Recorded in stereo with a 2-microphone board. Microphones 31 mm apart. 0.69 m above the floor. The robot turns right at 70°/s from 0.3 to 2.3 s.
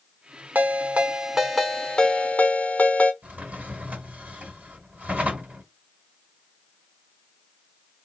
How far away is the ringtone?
About 0.9 m.